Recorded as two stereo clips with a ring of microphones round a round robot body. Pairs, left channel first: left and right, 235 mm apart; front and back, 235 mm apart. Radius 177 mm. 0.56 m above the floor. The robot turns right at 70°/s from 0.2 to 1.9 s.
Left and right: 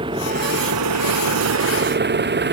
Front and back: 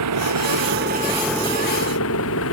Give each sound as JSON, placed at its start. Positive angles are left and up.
{"t": 0.0, "sound": "an engine running", "azimuth_deg": -165}